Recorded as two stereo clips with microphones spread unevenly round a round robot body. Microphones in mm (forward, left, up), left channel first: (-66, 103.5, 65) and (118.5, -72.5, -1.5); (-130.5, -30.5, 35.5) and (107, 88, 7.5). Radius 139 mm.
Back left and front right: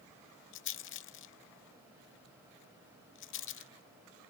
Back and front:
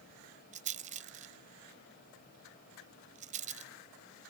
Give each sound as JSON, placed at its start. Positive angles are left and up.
{"t": 0.5, "sound": "a rattle", "azimuth_deg": 90}